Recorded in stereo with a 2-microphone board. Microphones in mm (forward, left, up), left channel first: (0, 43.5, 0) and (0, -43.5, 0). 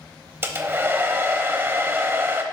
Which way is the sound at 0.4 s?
25° right (ahead or behind).